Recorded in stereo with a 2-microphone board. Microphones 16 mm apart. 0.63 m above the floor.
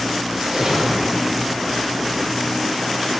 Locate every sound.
0.3 s a splash: 60° right (ahead or behind), 3 m